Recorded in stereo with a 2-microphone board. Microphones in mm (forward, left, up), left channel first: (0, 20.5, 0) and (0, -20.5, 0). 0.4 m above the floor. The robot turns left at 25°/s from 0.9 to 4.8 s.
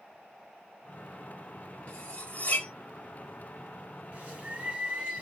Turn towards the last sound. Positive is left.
turn(degrees=-35)  # may be behind; listen again after turning